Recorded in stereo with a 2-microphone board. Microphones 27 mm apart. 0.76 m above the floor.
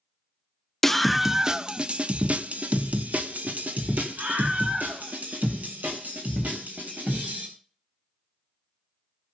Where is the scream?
15° left (ahead or behind), 0.7 m; by 7.5 s 80° right, 4 m.